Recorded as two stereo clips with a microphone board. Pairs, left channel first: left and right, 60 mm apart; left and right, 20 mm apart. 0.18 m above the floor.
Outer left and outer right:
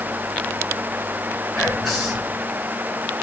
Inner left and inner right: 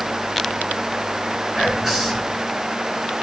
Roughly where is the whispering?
Centre.